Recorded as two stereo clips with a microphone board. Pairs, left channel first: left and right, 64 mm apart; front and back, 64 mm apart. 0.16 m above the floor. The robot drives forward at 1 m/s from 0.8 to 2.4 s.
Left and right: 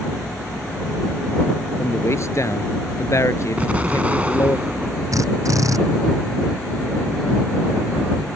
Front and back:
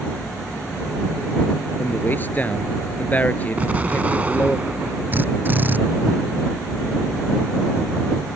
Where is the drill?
120° right.